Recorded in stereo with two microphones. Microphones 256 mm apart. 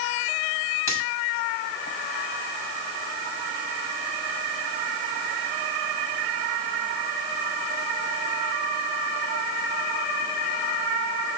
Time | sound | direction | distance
0.9 | a finger snap | 55° left (ahead or behind) | 6.5 m